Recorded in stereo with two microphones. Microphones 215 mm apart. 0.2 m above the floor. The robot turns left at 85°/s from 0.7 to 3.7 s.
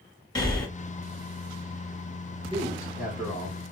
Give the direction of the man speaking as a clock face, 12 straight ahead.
4 o'clock.